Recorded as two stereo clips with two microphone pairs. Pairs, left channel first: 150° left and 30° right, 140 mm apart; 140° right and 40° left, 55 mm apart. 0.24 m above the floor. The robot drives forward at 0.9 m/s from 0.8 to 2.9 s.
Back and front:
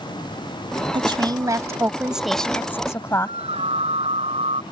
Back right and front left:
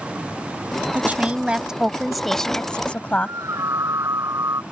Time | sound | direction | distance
0.9 | a woman speaking | 5° right | ?
3.2 | a scream | 15° left | ?